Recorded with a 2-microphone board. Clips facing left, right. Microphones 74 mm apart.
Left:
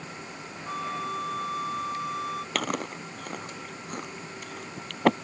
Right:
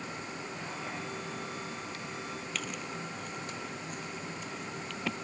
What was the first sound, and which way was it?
A flute, 60° left (ahead or behind).